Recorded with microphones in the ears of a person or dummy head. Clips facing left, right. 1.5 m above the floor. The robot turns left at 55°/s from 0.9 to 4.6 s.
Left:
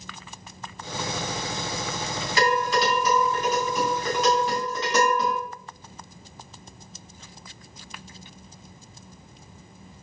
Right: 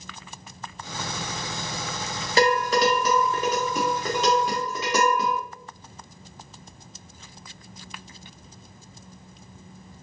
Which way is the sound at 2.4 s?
35° right (ahead or behind).